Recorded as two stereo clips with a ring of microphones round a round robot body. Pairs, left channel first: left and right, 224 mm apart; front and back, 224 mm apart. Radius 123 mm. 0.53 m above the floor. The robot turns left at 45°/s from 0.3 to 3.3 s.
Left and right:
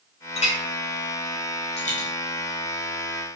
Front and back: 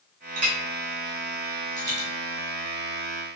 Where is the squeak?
No squeak in this recording.